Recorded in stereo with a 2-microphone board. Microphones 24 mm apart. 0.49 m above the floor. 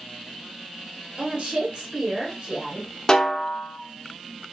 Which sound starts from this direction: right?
A woman speaking, at 1.2 s.